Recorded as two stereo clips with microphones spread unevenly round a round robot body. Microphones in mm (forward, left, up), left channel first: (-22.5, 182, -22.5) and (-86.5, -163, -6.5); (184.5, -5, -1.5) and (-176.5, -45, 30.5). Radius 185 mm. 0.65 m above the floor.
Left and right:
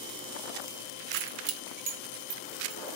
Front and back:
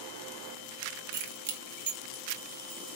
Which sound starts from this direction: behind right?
Keys jangling, at 1.1 s.